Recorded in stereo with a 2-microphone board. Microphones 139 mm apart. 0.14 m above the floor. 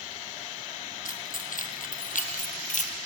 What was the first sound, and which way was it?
Keys jangling, 75° left (ahead or behind).